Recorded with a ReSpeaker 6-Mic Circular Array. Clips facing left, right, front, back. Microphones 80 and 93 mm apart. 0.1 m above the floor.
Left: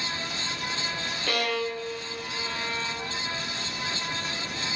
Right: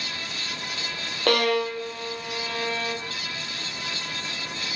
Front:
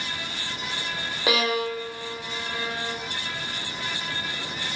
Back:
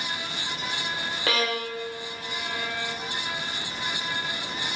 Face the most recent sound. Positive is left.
turn(degrees=-75)